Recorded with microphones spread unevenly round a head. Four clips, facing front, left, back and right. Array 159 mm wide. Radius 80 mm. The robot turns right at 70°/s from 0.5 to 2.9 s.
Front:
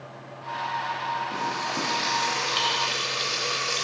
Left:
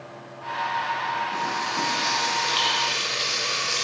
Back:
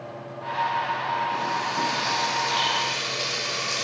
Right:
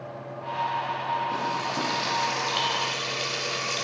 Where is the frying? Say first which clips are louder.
Left 1 dB, back 3 dB; 75° right, 1.0 m; by 3.9 s 35° left, 1.0 m.